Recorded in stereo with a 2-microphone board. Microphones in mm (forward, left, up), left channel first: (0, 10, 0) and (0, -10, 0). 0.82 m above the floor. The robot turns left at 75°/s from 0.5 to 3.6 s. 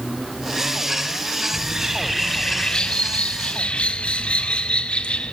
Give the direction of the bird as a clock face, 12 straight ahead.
4 o'clock.